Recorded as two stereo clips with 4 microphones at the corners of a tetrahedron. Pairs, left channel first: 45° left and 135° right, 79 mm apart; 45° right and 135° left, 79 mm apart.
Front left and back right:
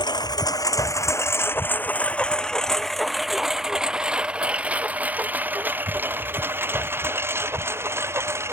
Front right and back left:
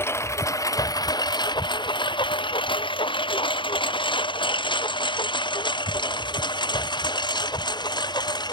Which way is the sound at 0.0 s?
15° left.